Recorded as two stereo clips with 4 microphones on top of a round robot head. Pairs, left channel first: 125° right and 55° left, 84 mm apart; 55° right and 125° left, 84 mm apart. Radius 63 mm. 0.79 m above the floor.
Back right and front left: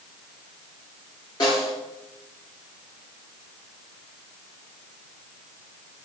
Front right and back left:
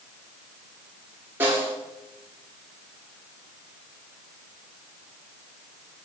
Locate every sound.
1.4 s a snare drum: 170° right, 2.5 m